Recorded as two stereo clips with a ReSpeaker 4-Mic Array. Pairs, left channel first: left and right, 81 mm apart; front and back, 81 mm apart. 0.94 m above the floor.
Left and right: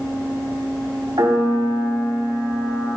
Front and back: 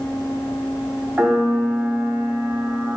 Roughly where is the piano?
Right.